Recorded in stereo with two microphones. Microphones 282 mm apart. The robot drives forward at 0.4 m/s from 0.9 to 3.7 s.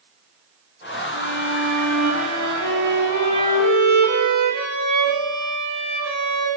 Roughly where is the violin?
Right.